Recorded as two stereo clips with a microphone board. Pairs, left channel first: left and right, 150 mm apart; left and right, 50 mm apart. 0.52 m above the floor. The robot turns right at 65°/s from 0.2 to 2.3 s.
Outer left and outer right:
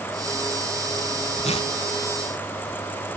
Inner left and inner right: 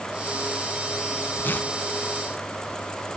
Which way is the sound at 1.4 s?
45° left (ahead or behind).